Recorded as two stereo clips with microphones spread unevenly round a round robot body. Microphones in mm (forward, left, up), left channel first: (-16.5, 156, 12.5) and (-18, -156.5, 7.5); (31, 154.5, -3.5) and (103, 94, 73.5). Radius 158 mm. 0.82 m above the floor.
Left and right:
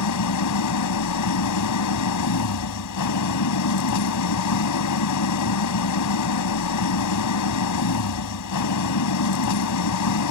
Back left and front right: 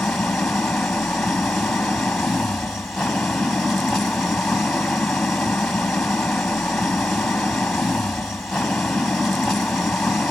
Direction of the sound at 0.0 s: 55° left.